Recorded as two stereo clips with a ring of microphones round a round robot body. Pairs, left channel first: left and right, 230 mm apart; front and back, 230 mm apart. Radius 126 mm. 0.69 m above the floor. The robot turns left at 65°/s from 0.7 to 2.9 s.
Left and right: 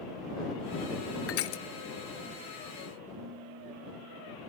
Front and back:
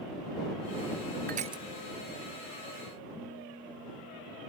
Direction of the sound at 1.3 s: 120° left.